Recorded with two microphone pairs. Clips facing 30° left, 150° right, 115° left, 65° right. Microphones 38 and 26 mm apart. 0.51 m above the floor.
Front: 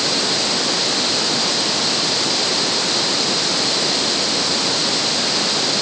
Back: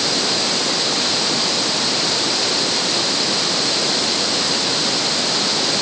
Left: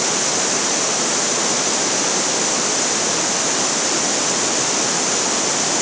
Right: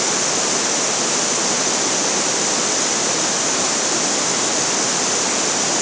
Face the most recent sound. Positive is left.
No sound to turn to.